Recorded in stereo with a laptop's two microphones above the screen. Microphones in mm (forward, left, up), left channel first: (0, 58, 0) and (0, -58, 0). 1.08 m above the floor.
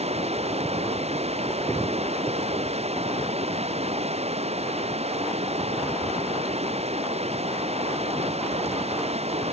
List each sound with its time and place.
0.0 s running water: 65° right (ahead or behind)